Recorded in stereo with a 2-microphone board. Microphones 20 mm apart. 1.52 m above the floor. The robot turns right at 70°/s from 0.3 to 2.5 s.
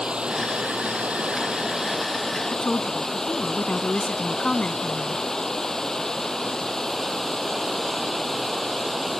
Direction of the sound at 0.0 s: 135° right.